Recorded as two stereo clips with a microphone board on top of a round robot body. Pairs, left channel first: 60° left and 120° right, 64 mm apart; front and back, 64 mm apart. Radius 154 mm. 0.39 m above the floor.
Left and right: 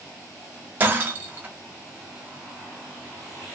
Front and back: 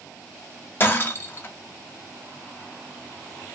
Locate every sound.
0.8 s breaking glass: 60° right, 0.6 m